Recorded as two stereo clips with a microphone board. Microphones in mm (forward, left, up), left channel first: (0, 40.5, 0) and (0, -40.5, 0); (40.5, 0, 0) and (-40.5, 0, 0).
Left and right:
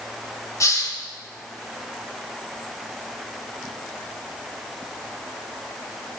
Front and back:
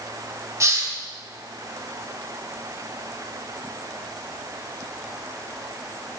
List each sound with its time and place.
0.6 s a hiss: 135° left, 1.3 m